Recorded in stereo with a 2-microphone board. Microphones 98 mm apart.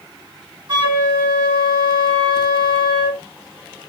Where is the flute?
50° right (ahead or behind), 3 m.